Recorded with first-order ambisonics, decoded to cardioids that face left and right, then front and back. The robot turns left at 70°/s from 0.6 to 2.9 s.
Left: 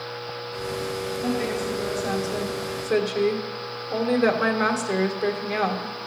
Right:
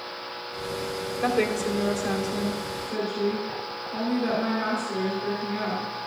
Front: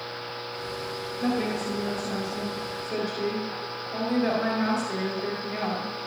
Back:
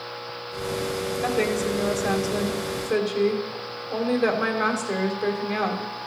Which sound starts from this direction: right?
A woman speaking, at 1.2 s.